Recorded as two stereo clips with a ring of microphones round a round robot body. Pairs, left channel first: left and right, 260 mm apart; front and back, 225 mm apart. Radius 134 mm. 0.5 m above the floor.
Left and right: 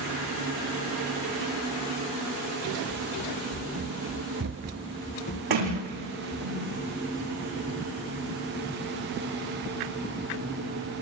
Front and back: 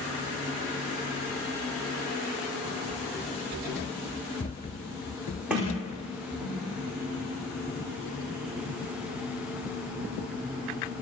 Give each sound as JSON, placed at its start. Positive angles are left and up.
{"t": 2.9, "sound": "running footsteps", "azimuth_deg": -95, "distance_m": 1.7}
{"t": 5.5, "sound": "a sliding door", "azimuth_deg": -95, "distance_m": 9.0}